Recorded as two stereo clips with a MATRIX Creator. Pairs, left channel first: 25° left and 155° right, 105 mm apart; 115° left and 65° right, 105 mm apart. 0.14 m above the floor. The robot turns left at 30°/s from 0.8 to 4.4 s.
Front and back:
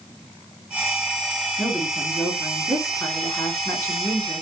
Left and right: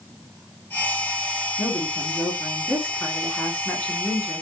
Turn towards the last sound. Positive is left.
turn(degrees=25)